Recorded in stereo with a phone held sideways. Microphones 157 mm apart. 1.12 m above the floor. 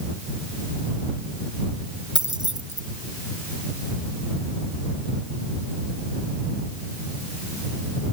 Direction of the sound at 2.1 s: 30° right (ahead or behind).